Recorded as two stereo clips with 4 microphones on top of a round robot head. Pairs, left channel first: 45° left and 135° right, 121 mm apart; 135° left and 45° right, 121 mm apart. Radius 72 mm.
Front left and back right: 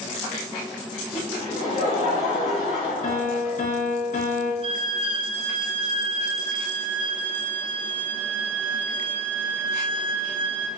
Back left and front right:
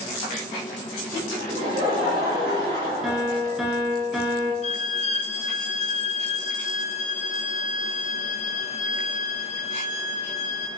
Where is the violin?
175° left, 0.7 m.